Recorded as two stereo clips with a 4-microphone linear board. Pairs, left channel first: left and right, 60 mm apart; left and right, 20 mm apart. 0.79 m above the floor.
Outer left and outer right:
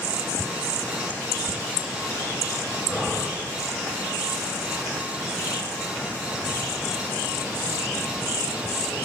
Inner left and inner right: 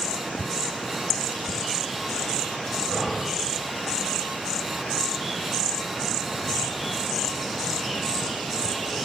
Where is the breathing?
Centre (ahead or behind), 2.5 m.